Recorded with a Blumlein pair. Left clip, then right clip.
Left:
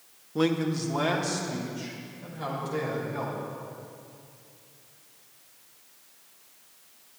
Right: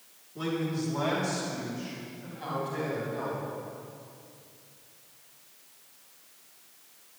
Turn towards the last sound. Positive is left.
turn(degrees=30)